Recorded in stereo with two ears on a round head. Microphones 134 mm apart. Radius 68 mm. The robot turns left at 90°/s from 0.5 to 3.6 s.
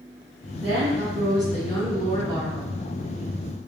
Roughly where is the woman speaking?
Right.